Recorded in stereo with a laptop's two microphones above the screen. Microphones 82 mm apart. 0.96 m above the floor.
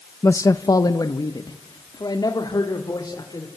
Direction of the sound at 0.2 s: 35° left (ahead or behind).